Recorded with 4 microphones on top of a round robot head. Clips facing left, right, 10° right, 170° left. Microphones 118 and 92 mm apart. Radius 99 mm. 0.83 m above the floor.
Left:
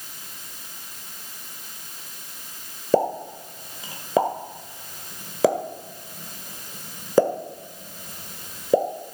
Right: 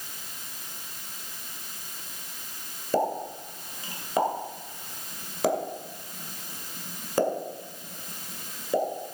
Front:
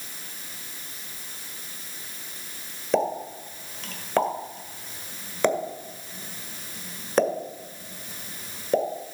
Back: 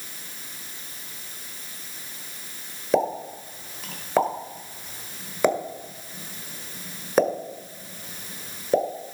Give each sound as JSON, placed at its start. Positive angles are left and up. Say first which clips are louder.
{"t": 2.9, "sound": "a pop", "louder": "left 5 dB, back 1 dB", "azimuth_deg": 85, "distance_m": 1.8}